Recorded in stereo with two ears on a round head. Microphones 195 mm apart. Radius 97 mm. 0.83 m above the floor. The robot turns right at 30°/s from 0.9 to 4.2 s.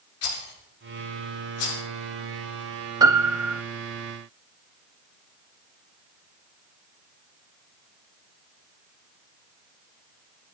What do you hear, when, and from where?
0.2 s a rattle: 75° left (ahead or behind), 7.5 m; by 1.8 s 80° left, 7.5 m
3.0 s a piano: 20° right (ahead or behind), 0.9 m; by 3.6 s 5° right (ahead or behind), 0.9 m